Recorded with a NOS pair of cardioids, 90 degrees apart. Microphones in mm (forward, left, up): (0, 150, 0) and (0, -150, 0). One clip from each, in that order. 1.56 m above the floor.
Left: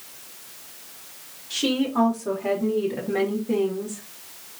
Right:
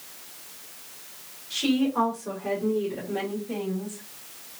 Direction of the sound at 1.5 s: 20° left.